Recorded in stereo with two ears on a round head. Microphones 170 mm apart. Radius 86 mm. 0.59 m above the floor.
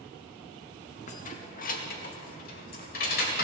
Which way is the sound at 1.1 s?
40° left (ahead or behind).